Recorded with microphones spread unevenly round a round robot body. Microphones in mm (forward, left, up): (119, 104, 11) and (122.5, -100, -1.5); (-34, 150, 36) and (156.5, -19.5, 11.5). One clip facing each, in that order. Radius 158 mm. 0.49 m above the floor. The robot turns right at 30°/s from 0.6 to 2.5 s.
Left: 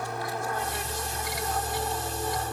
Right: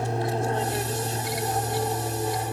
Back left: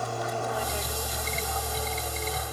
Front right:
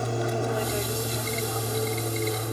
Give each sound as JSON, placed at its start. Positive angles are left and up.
{"t": 0.0, "sound": "an aircraft", "azimuth_deg": -70}